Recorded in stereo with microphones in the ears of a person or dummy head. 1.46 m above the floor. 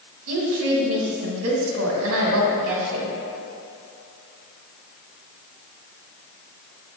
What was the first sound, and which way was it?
A woman speaking, 85° right.